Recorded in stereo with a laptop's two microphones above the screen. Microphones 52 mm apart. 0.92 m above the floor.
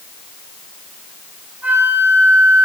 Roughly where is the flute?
Right.